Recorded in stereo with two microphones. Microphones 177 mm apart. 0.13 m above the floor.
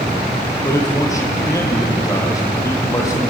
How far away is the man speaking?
About 4.5 m.